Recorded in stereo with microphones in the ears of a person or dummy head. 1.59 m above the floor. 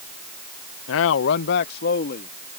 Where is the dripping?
I don't hear dripping.